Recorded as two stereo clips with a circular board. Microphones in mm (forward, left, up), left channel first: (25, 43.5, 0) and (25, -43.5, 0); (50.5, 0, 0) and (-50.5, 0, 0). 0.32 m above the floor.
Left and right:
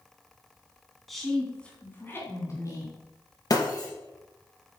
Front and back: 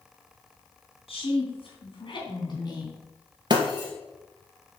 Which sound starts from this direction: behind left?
Breaking glass, at 3.5 s.